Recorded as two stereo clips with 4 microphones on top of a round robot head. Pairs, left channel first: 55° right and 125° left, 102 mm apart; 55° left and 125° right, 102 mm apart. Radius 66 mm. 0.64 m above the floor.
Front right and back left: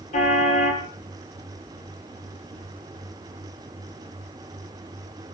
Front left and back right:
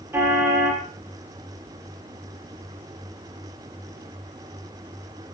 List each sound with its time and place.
0.1 s a car horn: 60° right, 9 m